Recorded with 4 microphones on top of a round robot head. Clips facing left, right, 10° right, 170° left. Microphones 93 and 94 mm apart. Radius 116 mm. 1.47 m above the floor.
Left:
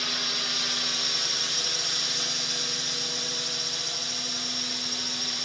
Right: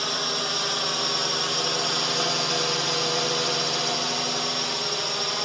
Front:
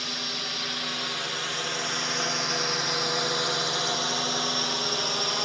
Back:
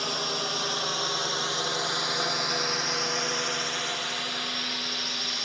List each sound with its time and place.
0.0 s a drone: 140° right; by 5.5 s 55° right